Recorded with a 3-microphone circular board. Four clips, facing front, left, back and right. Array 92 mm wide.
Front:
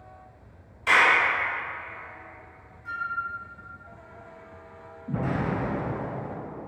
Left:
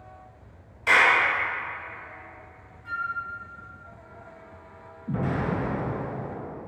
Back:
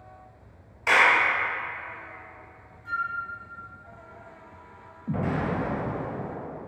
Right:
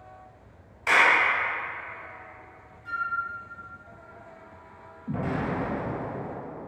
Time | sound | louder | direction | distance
0.9 | a clap | left 1 dB, even | 160° right | 1.3 m
2.9 | a flute | even, back 3 dB | 90° left | 0.7 m
5.1 | an explosion | left 1 dB, back 1 dB | 165° right | 1.1 m